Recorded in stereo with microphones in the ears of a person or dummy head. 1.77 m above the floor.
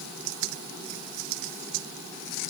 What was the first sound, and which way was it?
Only background noise.